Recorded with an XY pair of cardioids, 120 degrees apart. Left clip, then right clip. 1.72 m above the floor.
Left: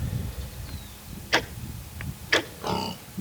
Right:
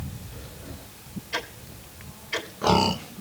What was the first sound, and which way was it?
Ticking, 65° left.